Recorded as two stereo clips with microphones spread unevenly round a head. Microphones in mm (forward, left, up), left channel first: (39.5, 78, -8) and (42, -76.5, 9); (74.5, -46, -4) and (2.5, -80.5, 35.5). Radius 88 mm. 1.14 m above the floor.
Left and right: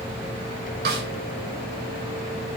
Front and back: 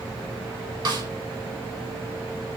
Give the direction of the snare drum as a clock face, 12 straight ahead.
4 o'clock.